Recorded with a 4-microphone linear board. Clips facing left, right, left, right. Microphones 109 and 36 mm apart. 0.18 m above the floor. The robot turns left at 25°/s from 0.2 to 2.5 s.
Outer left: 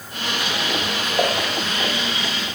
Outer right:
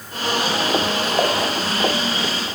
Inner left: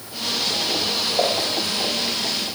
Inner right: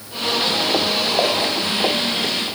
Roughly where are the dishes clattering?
Centre.